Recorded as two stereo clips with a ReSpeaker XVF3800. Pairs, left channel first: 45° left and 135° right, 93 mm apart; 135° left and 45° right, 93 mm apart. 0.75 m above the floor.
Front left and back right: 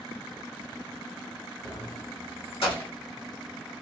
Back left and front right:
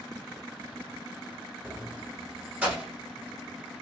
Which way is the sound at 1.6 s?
10° left.